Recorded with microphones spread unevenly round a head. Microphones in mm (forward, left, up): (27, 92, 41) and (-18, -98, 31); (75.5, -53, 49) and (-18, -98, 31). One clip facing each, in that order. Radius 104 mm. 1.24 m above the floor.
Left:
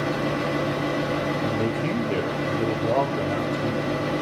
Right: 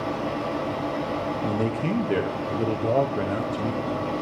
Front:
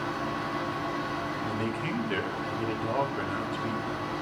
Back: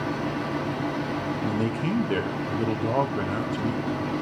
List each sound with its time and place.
0.0 s a fan: 140° left, 1.0 m
1.4 s a man speaking: 160° right, 0.7 m